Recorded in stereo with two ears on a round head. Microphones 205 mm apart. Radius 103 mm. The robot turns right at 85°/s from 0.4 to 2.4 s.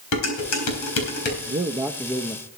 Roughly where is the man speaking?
Ahead right.